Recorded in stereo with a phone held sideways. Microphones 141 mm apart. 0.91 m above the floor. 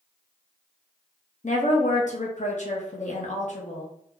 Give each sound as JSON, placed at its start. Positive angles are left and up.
{"t": 1.4, "sound": "a woman speaking", "side_deg": 60, "distance_m": 0.6}